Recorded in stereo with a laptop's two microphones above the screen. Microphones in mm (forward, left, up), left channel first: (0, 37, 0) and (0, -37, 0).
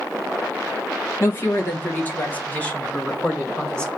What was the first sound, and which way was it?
A woman speaking, 35° left (ahead or behind).